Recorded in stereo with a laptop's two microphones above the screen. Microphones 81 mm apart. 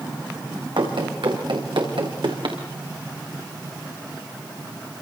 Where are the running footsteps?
75° right (ahead or behind), 5.5 m; by 2.6 s 80° right, 5 m.